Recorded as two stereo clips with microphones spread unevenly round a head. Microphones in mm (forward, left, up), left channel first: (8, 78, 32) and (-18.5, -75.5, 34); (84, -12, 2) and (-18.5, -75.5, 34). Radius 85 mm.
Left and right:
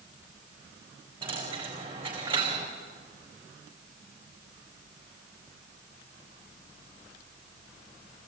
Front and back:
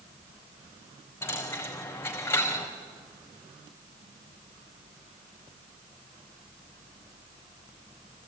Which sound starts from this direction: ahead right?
A dropped coin, at 1.2 s.